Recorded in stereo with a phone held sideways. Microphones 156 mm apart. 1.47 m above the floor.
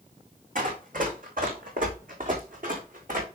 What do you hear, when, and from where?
0.6 s running footsteps: 65° right (ahead or behind), 3.5 m